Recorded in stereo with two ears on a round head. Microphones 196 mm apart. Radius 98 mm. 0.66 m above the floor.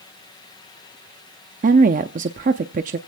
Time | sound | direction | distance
1.6 | a woman speaking | 35° right (ahead or behind) | 0.6 m